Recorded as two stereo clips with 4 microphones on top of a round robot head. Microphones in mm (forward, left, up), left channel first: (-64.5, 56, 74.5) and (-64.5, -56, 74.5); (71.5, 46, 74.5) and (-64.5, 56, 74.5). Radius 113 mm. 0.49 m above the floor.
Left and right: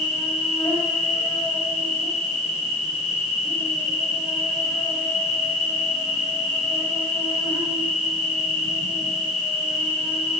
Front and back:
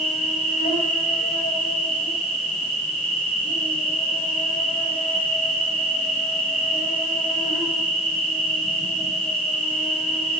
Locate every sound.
0.0 s an insect: 10° left, 7.5 m